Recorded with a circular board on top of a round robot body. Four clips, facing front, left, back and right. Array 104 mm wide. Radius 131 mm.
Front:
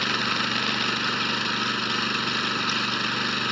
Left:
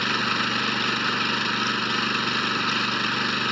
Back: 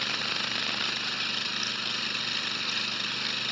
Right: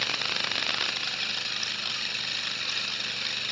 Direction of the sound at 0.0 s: 60° left.